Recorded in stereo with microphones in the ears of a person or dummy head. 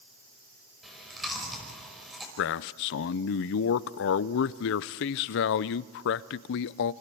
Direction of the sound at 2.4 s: 55° left (ahead or behind).